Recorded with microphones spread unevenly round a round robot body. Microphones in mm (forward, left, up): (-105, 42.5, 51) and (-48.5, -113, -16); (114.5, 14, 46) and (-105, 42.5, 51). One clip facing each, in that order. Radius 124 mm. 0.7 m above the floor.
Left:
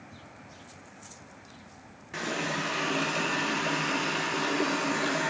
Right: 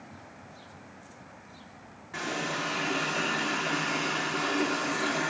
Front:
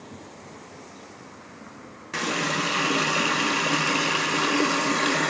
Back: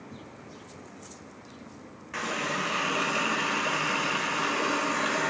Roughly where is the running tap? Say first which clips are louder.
Left 1 dB, front 5 dB; ahead left.